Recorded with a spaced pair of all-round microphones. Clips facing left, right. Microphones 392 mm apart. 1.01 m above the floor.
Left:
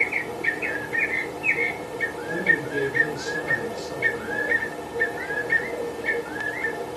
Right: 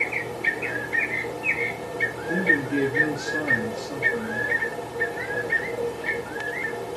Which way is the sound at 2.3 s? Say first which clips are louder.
Right 4 dB; 70° right (ahead or behind).